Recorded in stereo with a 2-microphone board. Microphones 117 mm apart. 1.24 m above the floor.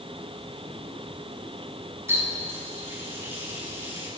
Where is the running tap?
25° right (ahead or behind), 6 m.